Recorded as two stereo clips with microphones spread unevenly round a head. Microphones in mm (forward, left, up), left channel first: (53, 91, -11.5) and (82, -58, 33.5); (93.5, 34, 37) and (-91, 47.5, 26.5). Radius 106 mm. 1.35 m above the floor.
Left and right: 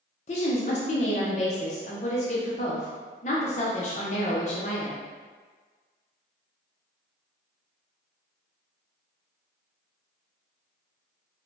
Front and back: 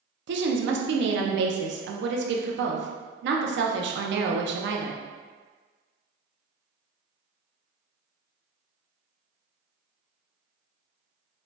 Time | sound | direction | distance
0.3 | a woman speaking | 155° left | 0.6 m